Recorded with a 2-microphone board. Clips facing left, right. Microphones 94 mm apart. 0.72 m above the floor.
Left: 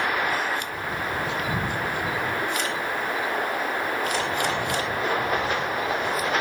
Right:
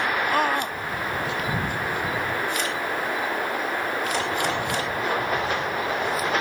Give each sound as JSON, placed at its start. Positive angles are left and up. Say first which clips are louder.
{"t": 0.3, "sound": "a scream", "louder": "right 4 dB", "side_deg": -55}